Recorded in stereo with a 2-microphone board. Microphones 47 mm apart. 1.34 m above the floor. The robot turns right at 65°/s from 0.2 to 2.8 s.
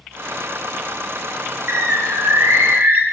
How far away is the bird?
About 0.6 m.